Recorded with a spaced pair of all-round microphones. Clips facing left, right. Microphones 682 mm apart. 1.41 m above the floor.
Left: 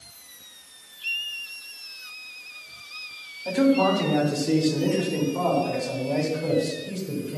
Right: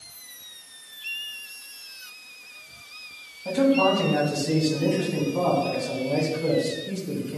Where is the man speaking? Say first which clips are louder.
Even; 30° right (ahead or behind), 3 m; by 7.4 s 70° right (ahead or behind), 6 m.